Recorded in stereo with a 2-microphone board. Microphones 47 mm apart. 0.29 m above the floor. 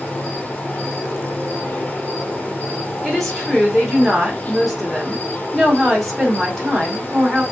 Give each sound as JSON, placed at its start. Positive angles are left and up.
{"t": 0.0, "sound": "an insect", "side_deg": 35, "distance_m": 1.2}
{"t": 3.0, "sound": "a woman speaking", "side_deg": -5, "distance_m": 2.5}